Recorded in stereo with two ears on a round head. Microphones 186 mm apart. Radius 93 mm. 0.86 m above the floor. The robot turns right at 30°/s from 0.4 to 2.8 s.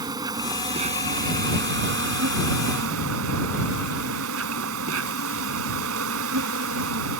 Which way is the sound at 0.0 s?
160° right.